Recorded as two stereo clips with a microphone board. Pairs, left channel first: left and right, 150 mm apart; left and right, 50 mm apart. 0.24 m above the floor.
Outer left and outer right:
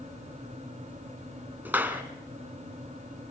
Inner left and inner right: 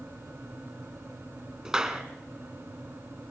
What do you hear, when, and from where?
1.6 s a clap: 10° right (ahead or behind), 1.9 m